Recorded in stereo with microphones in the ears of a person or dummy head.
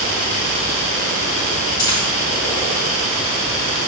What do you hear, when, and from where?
1.8 s a dropped coin: 20° left (ahead or behind), 2 m